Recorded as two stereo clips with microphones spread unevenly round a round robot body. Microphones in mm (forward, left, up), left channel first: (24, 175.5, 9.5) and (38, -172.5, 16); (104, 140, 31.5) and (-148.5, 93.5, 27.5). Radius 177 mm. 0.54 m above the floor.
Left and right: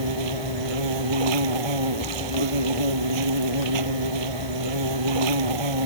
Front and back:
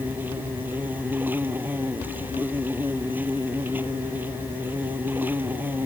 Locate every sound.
0.0 s an insect: 85° right